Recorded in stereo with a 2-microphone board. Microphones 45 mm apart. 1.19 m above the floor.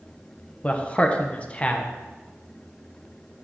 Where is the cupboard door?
I don't hear a cupboard door.